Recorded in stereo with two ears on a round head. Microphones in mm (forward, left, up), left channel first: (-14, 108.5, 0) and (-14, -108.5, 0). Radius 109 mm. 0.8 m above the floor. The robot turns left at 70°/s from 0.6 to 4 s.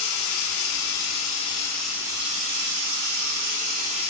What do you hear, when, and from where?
0.0 s running water: 90° left, 1.2 m; by 4.1 s 150° right, 1.2 m